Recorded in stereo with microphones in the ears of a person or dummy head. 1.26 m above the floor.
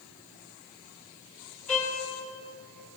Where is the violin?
5° left (ahead or behind), 6.5 m.